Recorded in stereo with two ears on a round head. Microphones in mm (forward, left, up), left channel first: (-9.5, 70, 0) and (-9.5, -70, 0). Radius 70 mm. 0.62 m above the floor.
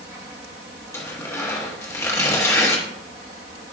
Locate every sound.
0.9 s tearing paper: 20° left (ahead or behind), 1.1 m